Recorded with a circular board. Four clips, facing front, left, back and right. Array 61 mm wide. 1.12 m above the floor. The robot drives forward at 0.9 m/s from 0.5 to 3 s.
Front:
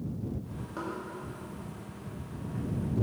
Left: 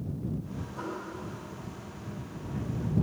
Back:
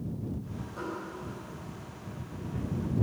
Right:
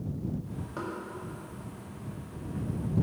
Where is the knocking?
60° right, 2 m; by 0.9 s 65° right, 2 m.